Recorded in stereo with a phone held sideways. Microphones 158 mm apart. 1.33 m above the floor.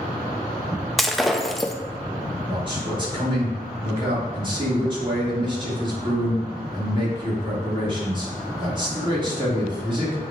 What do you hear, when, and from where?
1.0 s breaking glass: centre (ahead or behind), 0.6 m
2.5 s a man speaking: 30° right (ahead or behind), 3 m